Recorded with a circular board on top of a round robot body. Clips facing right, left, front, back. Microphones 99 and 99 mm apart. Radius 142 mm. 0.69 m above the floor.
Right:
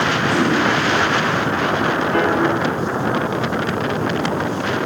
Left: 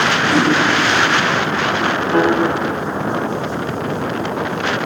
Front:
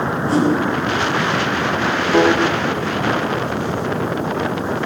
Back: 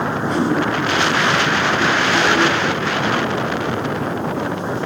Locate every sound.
0.3 s a whoosh: 55° left, 5.5 m
2.1 s a piano: 20° left, 2.0 m